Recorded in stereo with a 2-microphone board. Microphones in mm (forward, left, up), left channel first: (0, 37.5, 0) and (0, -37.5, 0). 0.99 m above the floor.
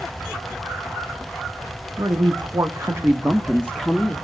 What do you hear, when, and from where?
2.0 s a woman speaking: 80° right, 1.6 m; by 4.2 s centre (ahead or behind), 1.9 m